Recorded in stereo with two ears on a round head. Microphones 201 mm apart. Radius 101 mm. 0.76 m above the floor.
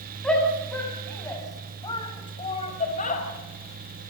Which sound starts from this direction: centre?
A shout, at 0.2 s.